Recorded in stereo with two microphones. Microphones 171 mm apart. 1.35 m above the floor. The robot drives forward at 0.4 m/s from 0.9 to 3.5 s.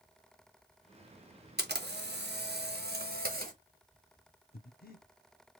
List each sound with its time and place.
1.6 s a camera shutter: 75° right (ahead or behind), 1.0 m; by 3.5 s 55° right (ahead or behind), 1.2 m
4.5 s breathing: 65° left (ahead or behind), 0.7 m